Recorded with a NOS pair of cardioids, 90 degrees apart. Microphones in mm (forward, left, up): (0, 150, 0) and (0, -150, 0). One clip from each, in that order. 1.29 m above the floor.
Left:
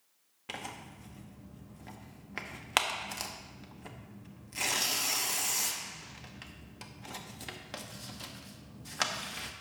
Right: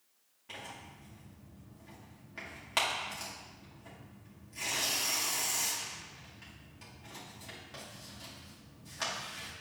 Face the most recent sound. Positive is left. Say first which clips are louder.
# left 4 dB
turn(degrees=60)